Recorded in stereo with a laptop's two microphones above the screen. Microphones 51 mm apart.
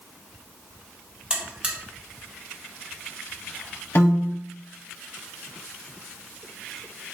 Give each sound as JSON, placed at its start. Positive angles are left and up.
{"t": 1.3, "sound": "a buzzer", "side_deg": -20, "distance_m": 0.6}
{"t": 4.0, "sound": "a piano", "side_deg": 50, "distance_m": 0.7}